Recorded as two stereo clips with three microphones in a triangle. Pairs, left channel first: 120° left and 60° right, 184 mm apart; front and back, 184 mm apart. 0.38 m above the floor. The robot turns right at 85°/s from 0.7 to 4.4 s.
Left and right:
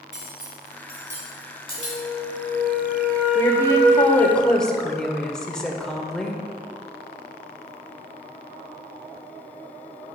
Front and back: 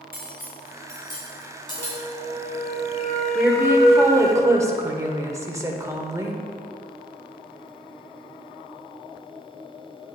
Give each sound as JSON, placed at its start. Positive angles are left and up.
{"t": 0.1, "sound": "cutlery clinking", "azimuth_deg": -25, "distance_m": 2.5}
{"t": 1.8, "sound": "a flute", "azimuth_deg": -160, "distance_m": 1.8}
{"t": 3.4, "sound": "a woman speaking", "azimuth_deg": 110, "distance_m": 0.9}